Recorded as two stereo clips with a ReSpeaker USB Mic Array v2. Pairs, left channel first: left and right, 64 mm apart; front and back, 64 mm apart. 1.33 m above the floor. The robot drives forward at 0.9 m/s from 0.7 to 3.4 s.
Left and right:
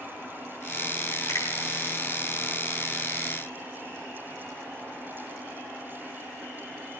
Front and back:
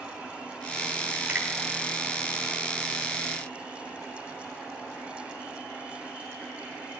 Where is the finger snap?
115° left, 5 m.